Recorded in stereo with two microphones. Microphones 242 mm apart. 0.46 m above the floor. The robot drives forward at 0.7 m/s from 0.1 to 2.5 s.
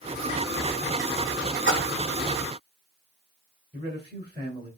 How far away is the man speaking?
About 1.7 m.